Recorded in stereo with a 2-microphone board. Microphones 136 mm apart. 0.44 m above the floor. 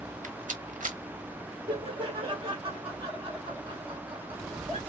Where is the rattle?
70° right (ahead or behind), 1.1 m.